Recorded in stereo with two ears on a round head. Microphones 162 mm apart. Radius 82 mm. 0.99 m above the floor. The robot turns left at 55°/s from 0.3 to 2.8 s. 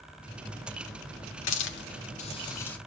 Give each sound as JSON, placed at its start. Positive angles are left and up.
{"t": 1.5, "sound": "a hiss", "side_deg": 75, "distance_m": 1.6}